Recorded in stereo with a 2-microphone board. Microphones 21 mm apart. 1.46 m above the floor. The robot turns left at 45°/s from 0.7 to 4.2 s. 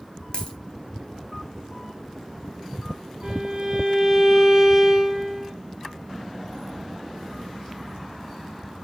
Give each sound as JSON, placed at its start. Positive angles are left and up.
{"t": 0.3, "sound": "a dropped coin", "side_deg": 55, "distance_m": 2.5}
{"t": 3.2, "sound": "a violin", "azimuth_deg": -100, "distance_m": 2.5}